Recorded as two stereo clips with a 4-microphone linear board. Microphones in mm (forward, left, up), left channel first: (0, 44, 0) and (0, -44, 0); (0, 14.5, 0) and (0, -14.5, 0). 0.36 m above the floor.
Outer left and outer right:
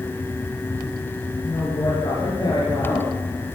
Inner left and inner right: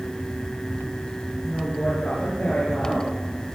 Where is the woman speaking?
55° left (ahead or behind), 7 m.